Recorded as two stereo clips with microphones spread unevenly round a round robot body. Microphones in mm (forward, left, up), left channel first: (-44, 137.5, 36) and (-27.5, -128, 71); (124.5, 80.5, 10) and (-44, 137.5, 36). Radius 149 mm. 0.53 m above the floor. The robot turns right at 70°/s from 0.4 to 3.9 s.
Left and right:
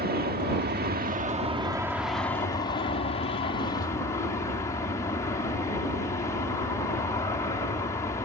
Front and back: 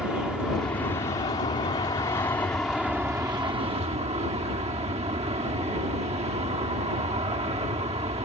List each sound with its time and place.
0.0 s an aircraft: 100° right; by 8.2 s 145° left